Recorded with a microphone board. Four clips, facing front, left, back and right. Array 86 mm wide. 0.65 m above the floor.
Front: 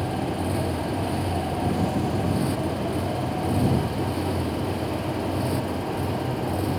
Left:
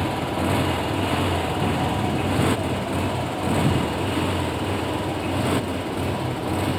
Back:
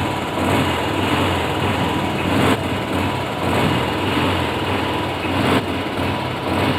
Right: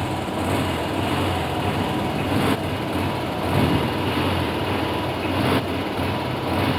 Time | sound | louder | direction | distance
0.0 | a motorcycle | left 1 dB, back 6 dB | straight behind | ?